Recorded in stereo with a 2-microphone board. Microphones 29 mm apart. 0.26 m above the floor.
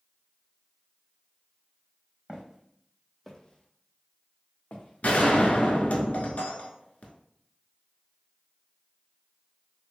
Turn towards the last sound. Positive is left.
turn(degrees=60)  # may be behind; listen again after turning